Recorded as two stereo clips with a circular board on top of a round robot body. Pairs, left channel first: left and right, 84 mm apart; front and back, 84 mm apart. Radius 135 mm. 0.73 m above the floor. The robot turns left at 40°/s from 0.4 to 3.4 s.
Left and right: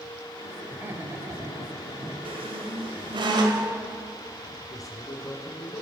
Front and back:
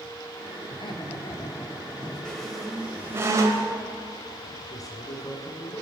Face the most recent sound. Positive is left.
turn(degrees=45)